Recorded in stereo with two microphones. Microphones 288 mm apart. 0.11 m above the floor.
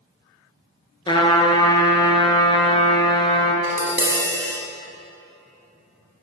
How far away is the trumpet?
About 0.7 m.